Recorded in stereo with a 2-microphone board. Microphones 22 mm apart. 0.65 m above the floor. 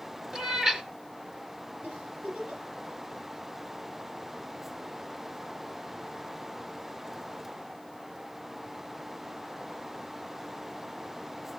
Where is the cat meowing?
25° right (ahead or behind), 1.7 m.